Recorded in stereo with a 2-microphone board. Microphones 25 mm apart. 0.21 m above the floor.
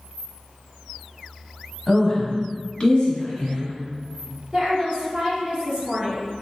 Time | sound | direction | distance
1.9 | a woman speaking | 20° left (ahead or behind) | 1.0 m
4.5 | a woman speaking | 25° right (ahead or behind) | 1.9 m